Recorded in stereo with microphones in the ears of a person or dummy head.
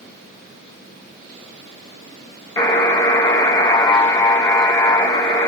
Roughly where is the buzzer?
Centre.